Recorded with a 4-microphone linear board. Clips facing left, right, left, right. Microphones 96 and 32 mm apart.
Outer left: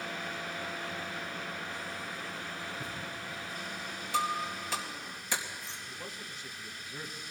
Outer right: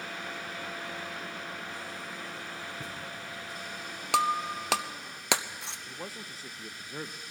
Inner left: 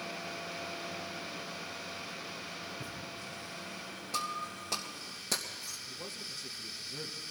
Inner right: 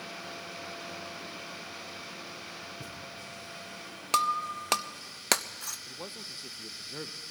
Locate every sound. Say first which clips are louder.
2.8 s a thud: even, even; 75° right (ahead or behind), 5.5 m
4.1 s breaking glass: outer right 5 dB, inner right 10 dB; 70° right (ahead or behind), 0.6 m
5.9 s a man speaking: outer right 2 dB, inner right 1 dB; 35° right (ahead or behind), 0.9 m